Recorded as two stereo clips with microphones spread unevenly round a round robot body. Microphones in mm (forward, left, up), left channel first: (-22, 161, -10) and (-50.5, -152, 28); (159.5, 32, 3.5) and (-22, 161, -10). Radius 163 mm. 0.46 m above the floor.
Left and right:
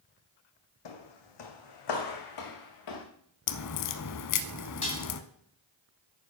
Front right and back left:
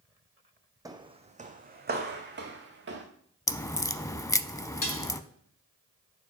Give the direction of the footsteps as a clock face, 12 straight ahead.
10 o'clock.